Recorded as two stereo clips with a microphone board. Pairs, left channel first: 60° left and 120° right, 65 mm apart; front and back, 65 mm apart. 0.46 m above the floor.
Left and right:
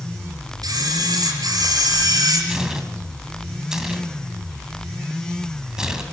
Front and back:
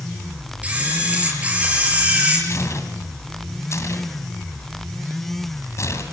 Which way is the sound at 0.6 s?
110° right.